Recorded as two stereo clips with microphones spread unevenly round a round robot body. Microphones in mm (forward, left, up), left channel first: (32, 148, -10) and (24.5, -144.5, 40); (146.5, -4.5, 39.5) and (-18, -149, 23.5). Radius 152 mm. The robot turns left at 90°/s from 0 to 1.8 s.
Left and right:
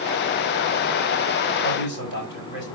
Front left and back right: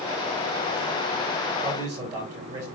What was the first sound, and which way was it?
A man speaking, 160° left.